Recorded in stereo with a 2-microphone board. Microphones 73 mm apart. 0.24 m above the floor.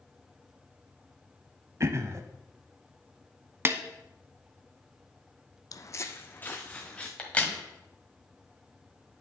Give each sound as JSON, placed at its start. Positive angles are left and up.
{"t": 1.8, "sound": "throat clearing", "side_deg": -40, "distance_m": 0.6}
{"t": 3.6, "sound": "a snare drum", "side_deg": -35, "distance_m": 0.8}
{"t": 5.7, "sound": "footsteps", "side_deg": 55, "distance_m": 0.5}
{"t": 7.2, "sound": "a crack", "side_deg": 20, "distance_m": 1.6}